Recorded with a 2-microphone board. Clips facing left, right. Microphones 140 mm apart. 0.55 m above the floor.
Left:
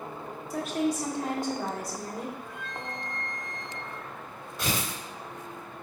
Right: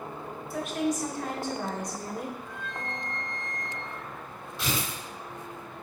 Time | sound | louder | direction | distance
0.5 | a woman speaking | left 1 dB | 40° left (ahead or behind) | 1.6 m
2.4 | a flute | right 1 dB | 75° left (ahead or behind) | 1.2 m
4.6 | tearing paper | left 1 dB | 45° left (ahead or behind) | 2 m